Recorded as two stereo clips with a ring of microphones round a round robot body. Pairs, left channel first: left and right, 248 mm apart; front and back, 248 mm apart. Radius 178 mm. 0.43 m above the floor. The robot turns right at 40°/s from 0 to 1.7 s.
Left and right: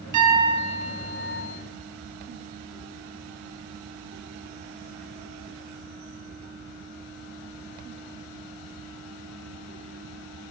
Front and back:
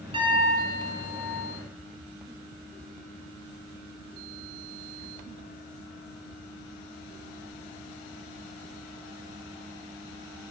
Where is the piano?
105° right, 2.5 m; by 1.4 s 50° right, 2.5 m.